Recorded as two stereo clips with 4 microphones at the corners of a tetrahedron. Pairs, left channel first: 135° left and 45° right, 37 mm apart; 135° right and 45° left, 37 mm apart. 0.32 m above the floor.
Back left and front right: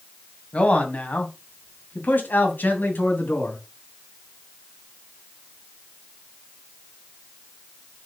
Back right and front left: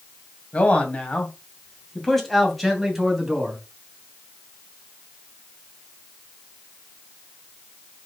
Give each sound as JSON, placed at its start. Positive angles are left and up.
{"t": 0.5, "sound": "a man speaking", "azimuth_deg": -175, "distance_m": 2.5}